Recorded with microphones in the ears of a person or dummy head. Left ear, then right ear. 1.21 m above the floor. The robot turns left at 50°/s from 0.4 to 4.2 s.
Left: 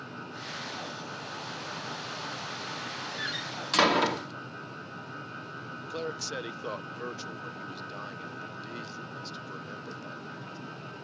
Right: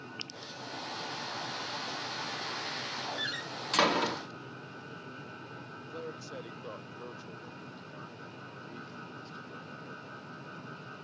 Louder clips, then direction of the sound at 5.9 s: Left 8 dB; 30° left (ahead or behind).